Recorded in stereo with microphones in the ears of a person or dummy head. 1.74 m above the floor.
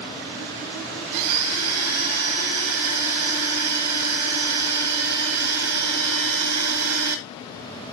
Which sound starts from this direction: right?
A blender, at 1.1 s.